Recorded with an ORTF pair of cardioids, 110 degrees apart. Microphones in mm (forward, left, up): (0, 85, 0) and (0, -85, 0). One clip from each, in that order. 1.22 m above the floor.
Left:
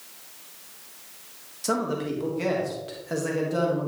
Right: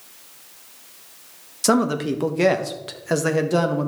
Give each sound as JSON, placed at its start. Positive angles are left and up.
{"t": 1.6, "sound": "a man speaking", "azimuth_deg": -55, "distance_m": 1.6}